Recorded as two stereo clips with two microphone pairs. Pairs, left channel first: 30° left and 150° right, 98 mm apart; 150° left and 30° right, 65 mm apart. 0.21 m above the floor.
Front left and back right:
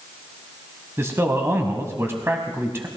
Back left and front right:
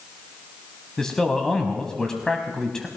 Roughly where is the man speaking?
Behind right.